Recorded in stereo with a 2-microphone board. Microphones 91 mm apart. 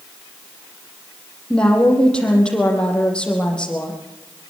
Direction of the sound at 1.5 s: 10° left (ahead or behind).